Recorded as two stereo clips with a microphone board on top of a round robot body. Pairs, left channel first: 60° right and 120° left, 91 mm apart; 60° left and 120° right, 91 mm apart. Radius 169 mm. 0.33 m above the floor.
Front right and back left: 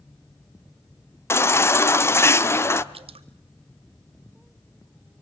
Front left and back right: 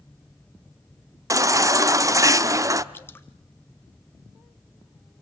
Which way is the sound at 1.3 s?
100° right.